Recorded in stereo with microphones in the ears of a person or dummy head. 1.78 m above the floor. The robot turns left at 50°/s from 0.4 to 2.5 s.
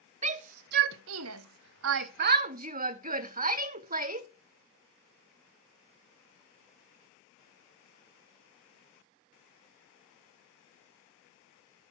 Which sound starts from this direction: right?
A shout, at 0.2 s.